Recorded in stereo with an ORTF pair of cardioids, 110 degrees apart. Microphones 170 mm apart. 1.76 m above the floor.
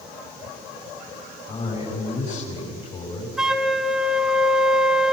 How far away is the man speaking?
About 6.5 m.